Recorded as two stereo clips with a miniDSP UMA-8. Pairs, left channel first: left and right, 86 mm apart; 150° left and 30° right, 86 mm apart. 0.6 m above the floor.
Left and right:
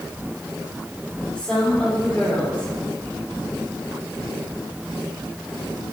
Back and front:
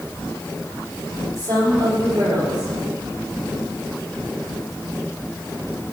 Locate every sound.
1.4 s a woman speaking: 5° left, 3 m